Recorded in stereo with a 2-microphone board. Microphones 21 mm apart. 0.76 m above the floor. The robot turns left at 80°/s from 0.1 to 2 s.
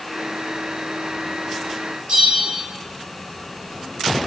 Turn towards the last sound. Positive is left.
turn(degrees=-50)  # may be behind; listen again after turning